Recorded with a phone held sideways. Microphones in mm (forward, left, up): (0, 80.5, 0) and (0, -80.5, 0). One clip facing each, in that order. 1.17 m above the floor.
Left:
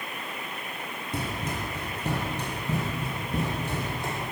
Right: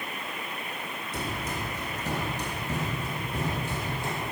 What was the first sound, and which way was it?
Running footsteps, 60° left (ahead or behind).